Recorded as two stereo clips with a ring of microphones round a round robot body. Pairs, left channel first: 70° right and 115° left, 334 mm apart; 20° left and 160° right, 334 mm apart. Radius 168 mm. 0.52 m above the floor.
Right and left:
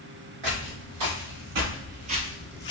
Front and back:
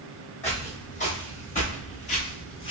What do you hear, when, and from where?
0.4 s footsteps: 90° left, 1.2 m; by 2.7 s 20° right, 0.5 m